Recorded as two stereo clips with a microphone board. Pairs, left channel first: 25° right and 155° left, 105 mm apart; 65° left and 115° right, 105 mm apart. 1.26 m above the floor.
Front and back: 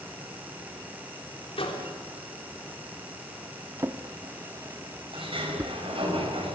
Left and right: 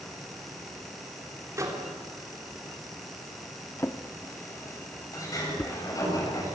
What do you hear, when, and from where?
1.6 s a microwave: 50° right, 3.5 m
3.8 s a drawer: 110° left, 0.9 m
5.1 s a sliding door: 125° left, 7.5 m